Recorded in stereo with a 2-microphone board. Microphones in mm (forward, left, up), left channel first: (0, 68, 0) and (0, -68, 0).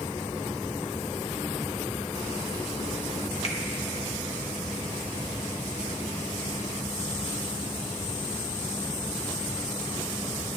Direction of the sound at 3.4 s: 50° left (ahead or behind).